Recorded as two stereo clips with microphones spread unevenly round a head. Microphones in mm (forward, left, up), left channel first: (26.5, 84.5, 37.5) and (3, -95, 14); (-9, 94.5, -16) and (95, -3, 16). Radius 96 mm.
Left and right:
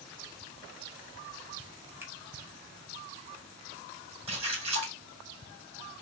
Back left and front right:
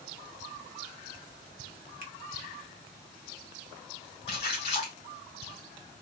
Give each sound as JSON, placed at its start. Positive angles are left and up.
{"t": 2.0, "sound": "a finger snap", "azimuth_deg": -25, "distance_m": 1.0}
{"t": 4.3, "sound": "a splash", "azimuth_deg": -155, "distance_m": 1.6}